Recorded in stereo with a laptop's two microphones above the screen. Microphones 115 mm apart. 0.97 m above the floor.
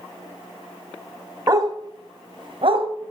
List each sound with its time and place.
1.5 s a dog barking: 30° right (ahead or behind), 1.8 m; by 2.9 s 55° right (ahead or behind), 1.8 m